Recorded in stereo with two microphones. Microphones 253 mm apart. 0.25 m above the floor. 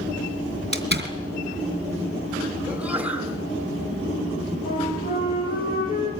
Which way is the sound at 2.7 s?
5° right (ahead or behind).